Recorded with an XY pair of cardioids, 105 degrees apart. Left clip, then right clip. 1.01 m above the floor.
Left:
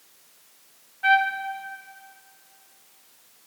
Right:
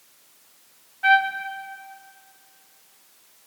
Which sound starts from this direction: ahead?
A trumpet, at 1.0 s.